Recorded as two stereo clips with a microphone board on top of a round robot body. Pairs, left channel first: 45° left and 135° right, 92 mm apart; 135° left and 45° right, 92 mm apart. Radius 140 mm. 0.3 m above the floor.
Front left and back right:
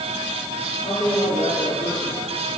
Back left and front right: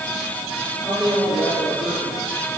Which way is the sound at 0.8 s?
60° left.